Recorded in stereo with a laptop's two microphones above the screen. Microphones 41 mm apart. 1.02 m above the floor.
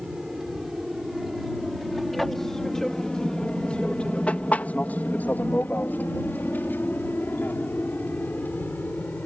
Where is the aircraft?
5° right (ahead or behind); by 9.3 s 45° left (ahead or behind).